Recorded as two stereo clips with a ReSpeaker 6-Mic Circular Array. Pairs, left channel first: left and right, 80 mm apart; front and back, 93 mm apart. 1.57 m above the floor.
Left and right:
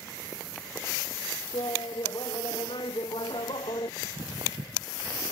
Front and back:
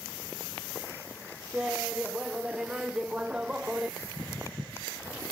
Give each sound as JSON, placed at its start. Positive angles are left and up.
{"t": 1.5, "sound": "laughter", "azimuth_deg": 100}
{"t": 4.0, "sound": "footsteps", "azimuth_deg": -110}